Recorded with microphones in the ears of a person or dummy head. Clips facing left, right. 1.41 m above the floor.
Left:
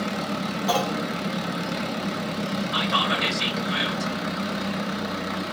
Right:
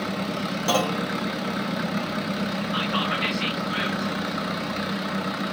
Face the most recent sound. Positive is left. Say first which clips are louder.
# left 1 dB
turn(degrees=60)  # may be behind; listen again after turning